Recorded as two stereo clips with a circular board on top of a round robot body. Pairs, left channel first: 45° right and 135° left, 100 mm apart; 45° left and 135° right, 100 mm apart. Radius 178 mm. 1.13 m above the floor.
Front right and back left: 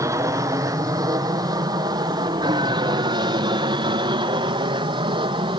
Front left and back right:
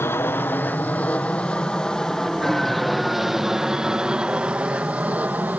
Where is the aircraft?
100° left; by 5.6 s 155° left.